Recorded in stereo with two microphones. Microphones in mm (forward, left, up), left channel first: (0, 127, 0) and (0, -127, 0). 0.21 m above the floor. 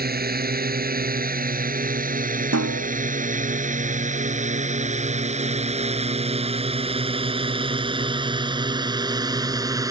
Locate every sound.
0.0 s a drone: 40° right (ahead or behind); by 9.9 s 15° right (ahead or behind)
2.5 s a snare drum: 80° right